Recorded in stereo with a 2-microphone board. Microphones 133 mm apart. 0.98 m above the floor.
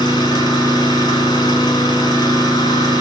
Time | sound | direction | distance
0.0 | an engine running | 35° left (ahead or behind) | 5 m